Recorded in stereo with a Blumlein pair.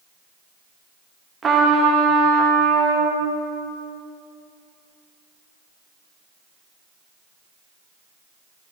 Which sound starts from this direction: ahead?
A trumpet, at 1.4 s.